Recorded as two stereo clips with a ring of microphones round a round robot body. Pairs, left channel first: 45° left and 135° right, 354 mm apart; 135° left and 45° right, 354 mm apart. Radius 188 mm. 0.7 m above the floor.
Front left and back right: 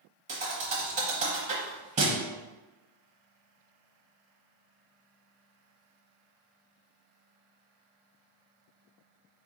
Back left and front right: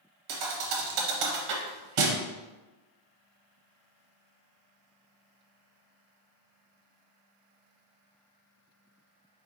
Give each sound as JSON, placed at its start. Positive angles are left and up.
{"t": 0.3, "sound": "a thud", "azimuth_deg": -65, "distance_m": 0.8}